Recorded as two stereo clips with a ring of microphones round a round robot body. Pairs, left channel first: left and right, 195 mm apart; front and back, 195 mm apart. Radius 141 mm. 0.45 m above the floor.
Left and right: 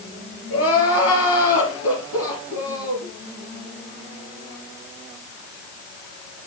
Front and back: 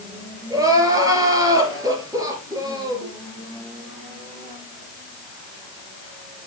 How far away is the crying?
About 3.5 m.